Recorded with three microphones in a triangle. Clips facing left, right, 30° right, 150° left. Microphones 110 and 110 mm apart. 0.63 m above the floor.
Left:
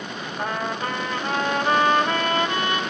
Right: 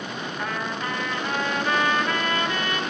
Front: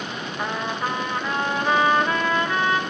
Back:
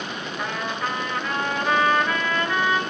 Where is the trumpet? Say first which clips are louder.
Left 4 dB, front 2 dB; 35° left, 1.8 m.